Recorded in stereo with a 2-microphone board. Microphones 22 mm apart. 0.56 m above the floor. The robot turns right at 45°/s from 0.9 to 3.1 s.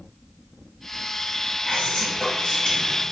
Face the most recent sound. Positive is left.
turn(degrees=160)